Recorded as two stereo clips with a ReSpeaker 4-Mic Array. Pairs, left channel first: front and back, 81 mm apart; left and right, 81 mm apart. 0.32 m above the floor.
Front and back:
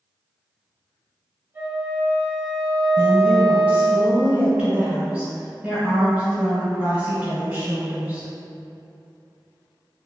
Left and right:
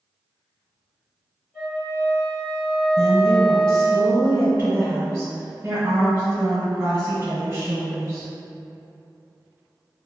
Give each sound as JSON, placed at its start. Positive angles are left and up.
{"t": 1.5, "sound": "a flute", "azimuth_deg": 180, "distance_m": 1.4}
{"t": 3.0, "sound": "a woman speaking", "azimuth_deg": -125, "distance_m": 1.3}